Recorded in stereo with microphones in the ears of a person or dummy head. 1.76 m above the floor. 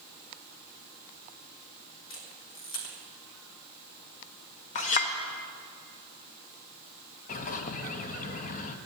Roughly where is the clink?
Left.